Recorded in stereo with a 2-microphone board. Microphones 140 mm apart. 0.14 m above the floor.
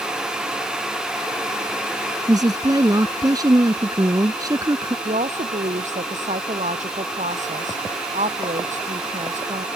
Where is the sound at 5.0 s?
60° right (ahead or behind).